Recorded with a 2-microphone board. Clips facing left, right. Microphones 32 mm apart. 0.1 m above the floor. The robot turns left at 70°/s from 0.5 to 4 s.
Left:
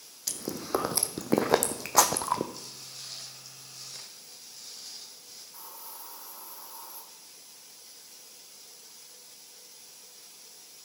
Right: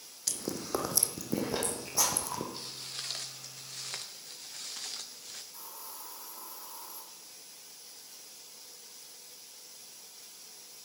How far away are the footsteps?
About 3 m.